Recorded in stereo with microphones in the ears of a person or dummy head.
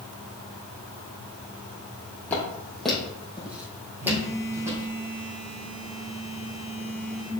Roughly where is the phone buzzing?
Right.